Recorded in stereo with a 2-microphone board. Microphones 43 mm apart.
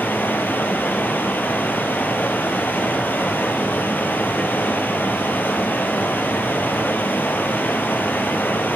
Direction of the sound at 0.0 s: 60° left (ahead or behind).